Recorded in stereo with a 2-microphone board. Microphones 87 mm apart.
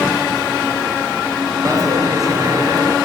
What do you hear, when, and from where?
1.6 s a dropped coin: 45° right (ahead or behind), 1.7 m